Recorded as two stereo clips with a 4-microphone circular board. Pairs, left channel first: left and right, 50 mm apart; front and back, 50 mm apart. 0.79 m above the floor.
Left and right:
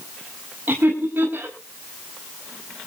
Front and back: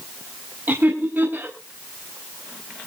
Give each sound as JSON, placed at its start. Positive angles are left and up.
{"t": 0.7, "sound": "laughter", "azimuth_deg": -135, "distance_m": 5.0}